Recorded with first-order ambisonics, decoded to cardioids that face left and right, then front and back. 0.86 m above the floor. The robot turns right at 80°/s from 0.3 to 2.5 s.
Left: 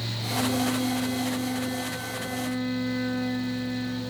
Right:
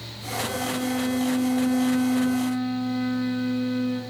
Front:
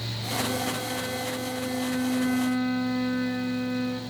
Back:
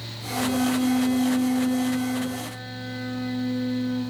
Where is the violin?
160° left, 7.5 m; by 4.0 s 25° right, 7.5 m.